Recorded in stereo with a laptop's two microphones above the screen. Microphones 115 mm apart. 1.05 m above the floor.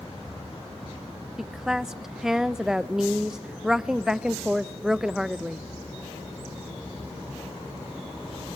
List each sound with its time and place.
1.4 s a woman speaking: 5° right (ahead or behind), 0.5 m